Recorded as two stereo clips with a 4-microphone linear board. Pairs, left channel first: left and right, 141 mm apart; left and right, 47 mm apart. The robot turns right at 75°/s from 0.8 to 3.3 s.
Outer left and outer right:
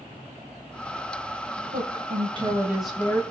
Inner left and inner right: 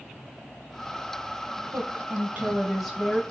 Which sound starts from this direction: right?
A woman speaking, at 1.7 s.